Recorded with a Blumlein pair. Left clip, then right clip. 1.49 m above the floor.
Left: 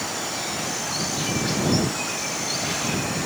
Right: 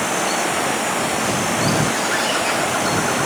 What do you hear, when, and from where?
0.0 s running water: 60° right